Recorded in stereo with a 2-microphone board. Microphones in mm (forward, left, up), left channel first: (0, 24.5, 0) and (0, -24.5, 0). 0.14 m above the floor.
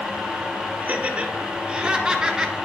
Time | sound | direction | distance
0.8 | laughter | 30° right (ahead or behind) | 1.5 m